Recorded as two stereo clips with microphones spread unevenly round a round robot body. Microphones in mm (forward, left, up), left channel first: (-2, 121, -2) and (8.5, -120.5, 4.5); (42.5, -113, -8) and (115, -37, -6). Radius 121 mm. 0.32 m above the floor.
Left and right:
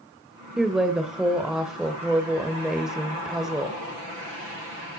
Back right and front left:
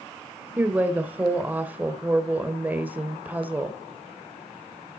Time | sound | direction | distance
0.6 | a woman speaking | straight ahead | 0.9 m